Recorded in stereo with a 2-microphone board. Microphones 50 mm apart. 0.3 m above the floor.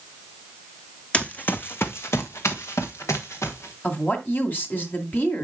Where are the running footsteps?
25° left (ahead or behind), 0.9 m; by 3.7 s 85° left, 2 m.